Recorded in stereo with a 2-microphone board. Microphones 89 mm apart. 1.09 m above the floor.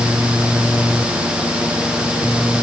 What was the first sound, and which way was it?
Only background noise.